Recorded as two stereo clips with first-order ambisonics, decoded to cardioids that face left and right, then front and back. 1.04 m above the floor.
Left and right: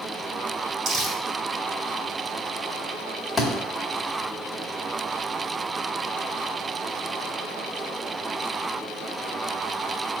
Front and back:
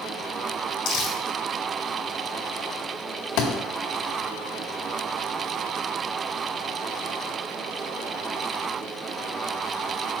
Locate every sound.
0.8 s crumpling: 30° right, 3.5 m
3.4 s a thud: 10° left, 2 m